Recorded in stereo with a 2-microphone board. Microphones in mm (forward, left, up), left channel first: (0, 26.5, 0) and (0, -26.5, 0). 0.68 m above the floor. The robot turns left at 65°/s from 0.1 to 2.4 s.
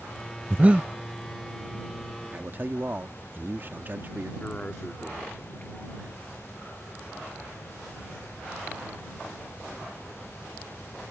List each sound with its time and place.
0.5 s breathing: 35° right (ahead or behind); by 0.9 s 15° right (ahead or behind)
2.3 s a man speaking: 40° right (ahead or behind)
4.4 s a man speaking: 25° left (ahead or behind)